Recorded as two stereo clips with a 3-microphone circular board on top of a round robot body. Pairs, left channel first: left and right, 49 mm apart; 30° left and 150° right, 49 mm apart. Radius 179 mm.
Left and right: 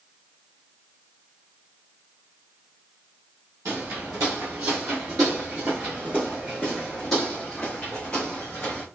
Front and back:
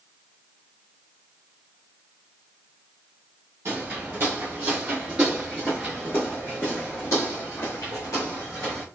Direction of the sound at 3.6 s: 110° right.